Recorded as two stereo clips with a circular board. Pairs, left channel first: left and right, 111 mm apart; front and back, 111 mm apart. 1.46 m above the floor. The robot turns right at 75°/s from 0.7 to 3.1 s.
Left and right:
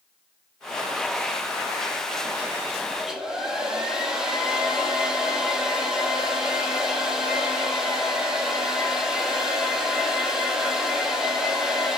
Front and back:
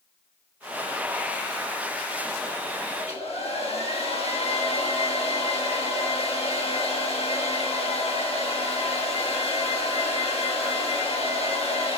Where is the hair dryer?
15° right, 1.3 m; by 12.0 s 5° right, 1.3 m.